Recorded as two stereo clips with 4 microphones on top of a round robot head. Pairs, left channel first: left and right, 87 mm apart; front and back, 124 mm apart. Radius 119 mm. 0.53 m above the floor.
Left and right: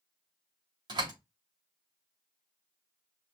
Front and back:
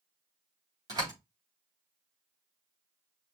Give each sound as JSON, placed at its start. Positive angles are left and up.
{"t": 0.9, "sound": "a door slam", "azimuth_deg": -120, "distance_m": 3.0}